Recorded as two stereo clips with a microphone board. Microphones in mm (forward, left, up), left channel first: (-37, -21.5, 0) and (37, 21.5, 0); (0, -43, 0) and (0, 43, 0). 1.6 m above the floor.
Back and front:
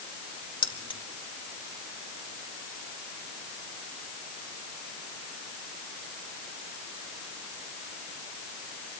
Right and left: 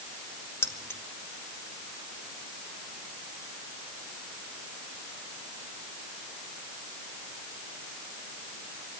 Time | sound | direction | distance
0.6 | keys jangling | 150° right | 1.8 m